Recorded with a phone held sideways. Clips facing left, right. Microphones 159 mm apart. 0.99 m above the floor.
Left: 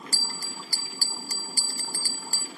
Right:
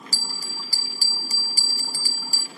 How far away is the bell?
About 0.7 m.